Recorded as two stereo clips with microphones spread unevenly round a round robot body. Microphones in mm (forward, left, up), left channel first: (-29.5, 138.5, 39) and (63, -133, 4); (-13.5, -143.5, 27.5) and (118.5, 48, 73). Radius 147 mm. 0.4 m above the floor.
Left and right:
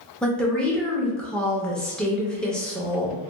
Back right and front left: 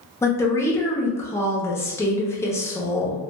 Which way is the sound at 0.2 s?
150° right.